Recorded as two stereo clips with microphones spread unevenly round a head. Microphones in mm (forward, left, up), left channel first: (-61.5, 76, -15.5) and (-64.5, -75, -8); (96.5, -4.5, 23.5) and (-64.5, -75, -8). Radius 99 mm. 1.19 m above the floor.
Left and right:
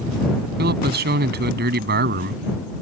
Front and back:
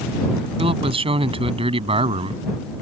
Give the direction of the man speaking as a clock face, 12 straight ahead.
3 o'clock.